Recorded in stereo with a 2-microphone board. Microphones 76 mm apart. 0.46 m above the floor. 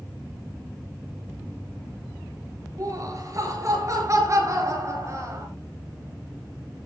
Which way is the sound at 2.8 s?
45° right (ahead or behind).